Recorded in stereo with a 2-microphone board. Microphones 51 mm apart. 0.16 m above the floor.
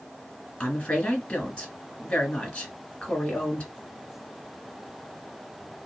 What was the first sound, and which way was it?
A woman speaking, 20° left (ahead or behind).